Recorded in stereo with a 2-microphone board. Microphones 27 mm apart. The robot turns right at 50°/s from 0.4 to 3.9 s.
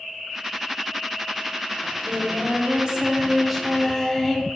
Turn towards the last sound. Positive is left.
turn(degrees=15)